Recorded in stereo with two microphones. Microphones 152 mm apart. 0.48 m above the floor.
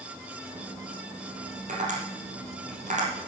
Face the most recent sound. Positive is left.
turn(degrees=-55)  # may be behind; listen again after turning